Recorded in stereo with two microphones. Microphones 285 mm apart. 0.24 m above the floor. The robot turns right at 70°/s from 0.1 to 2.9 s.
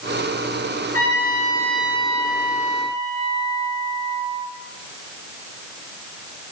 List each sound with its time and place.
0.9 s a trumpet: 120° left, 3 m; by 4.5 s 100° right, 3 m